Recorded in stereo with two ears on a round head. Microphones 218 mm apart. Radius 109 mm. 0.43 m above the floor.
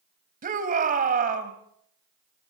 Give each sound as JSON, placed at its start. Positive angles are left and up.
{"t": 0.4, "sound": "a shout", "side_deg": -35, "distance_m": 3.0}